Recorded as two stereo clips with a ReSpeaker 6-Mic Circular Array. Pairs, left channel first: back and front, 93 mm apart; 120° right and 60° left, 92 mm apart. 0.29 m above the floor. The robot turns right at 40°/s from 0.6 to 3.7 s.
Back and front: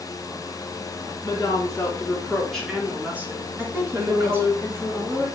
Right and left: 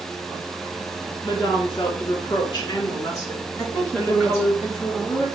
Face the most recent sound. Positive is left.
turn(degrees=-65)